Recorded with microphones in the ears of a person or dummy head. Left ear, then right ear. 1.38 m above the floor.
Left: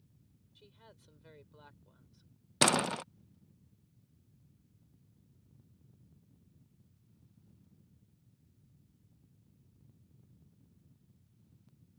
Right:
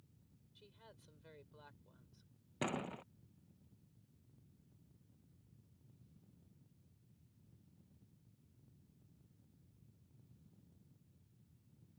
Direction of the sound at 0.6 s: Centre (ahead or behind).